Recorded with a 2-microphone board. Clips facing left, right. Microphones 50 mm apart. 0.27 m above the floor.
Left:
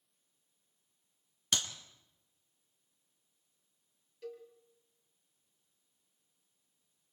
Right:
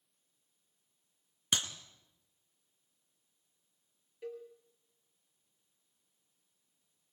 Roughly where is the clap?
Centre.